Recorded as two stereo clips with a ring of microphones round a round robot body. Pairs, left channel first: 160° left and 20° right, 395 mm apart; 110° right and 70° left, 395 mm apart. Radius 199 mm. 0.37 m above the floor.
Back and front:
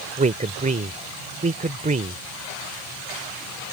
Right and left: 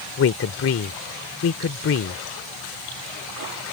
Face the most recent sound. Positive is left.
turn(degrees=-80)